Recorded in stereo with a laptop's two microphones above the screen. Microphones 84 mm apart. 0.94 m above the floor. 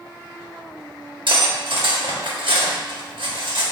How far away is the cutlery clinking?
About 0.9 m.